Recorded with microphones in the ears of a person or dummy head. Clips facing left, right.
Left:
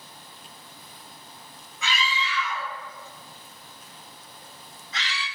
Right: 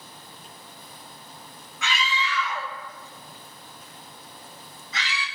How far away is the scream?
About 3 m.